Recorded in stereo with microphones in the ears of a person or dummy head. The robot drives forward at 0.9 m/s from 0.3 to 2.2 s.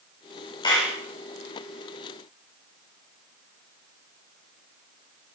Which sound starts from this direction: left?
A clap, at 0.6 s.